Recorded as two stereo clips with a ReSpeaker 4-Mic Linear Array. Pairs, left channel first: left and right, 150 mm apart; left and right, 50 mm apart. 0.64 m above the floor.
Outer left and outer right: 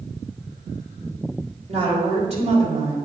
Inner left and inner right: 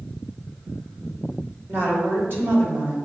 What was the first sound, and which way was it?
A woman speaking, 45° right (ahead or behind).